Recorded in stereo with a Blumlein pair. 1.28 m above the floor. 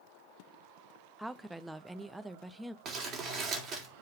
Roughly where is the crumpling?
Ahead right.